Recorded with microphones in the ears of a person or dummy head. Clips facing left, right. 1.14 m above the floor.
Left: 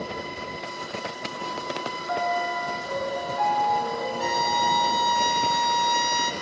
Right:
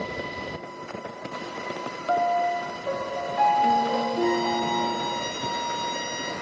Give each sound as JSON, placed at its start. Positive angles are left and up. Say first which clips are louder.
{"t": 2.1, "sound": "a piano", "louder": "right 4 dB", "side_deg": -75, "distance_m": 3.5}
{"t": 4.2, "sound": "a violin", "louder": "right 2 dB", "side_deg": 60, "distance_m": 3.0}